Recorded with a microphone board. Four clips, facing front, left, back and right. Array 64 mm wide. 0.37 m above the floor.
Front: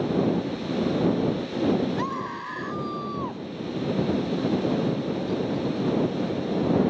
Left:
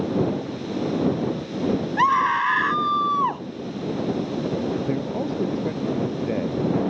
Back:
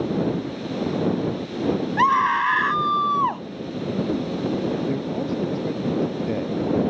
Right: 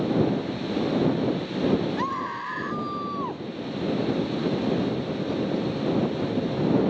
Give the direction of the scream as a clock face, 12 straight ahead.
7 o'clock.